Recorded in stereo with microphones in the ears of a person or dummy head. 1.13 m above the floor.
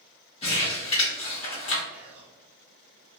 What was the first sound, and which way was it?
Crumpling, 40° left (ahead or behind).